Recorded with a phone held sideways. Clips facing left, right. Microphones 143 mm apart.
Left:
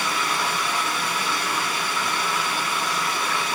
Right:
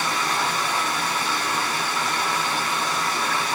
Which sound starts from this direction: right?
Running water, at 0.0 s.